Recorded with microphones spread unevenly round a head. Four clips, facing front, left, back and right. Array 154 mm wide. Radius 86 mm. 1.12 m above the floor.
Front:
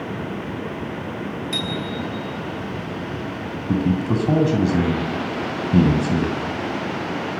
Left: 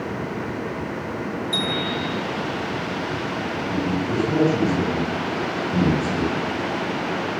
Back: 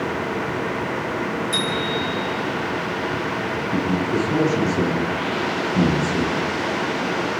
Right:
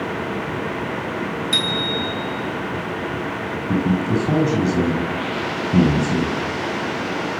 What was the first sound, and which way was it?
A bicycle bell, 100° right.